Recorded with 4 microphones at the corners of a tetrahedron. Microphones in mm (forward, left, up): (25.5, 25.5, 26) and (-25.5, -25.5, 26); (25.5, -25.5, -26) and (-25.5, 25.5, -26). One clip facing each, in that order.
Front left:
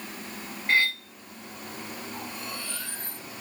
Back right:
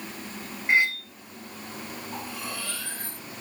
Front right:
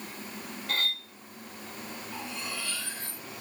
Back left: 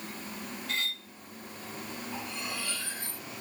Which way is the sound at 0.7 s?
65° right.